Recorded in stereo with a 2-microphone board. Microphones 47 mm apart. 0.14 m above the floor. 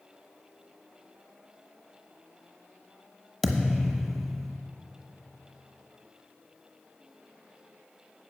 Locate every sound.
3.4 s a thud: 5° left (ahead or behind), 1.0 m